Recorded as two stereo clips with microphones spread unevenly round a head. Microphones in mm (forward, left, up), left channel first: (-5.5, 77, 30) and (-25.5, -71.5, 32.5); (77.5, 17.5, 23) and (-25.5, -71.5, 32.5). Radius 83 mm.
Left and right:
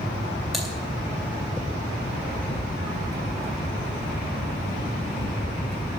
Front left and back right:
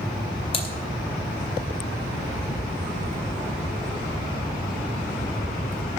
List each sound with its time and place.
0.5 s typing on a keyboard: 10° right, 2 m